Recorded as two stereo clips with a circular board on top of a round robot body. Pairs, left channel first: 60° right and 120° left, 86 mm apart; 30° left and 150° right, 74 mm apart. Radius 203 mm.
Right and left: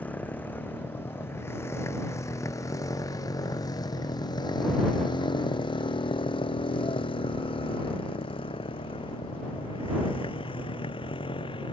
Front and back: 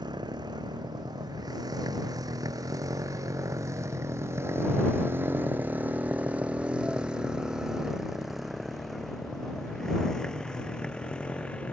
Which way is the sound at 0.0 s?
130° right.